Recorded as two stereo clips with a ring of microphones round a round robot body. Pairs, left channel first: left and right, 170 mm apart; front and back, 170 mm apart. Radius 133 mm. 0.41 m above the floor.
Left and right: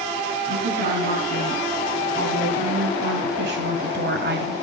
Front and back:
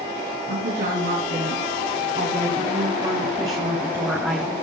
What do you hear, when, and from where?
0.5 s a woman speaking: 140° right, 5 m; by 4.5 s 90° right, 2.5 m